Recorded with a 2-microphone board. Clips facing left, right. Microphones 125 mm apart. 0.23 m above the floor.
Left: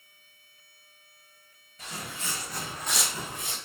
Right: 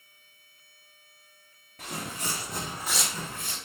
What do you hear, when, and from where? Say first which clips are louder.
1.8 s footsteps: right 3 dB; 55° right (ahead or behind), 0.8 m; by 3.6 s 25° left (ahead or behind), 0.7 m